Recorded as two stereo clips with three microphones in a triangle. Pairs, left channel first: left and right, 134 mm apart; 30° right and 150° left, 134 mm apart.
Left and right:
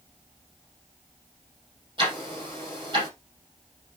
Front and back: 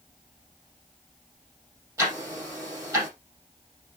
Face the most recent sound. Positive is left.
turn(degrees=-145)